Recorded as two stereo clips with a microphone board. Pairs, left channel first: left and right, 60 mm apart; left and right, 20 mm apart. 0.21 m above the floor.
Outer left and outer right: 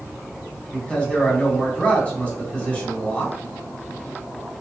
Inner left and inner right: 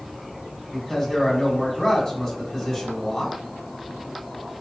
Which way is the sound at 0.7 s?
20° left (ahead or behind).